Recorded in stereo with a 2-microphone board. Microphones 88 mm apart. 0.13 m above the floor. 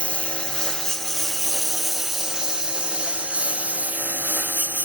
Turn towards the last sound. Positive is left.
turn(degrees=-20)  # may be behind; listen again after turning